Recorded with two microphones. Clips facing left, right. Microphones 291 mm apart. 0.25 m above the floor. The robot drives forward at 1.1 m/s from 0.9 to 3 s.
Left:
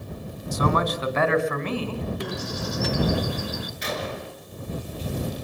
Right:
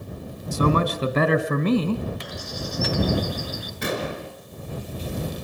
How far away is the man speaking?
About 2 m.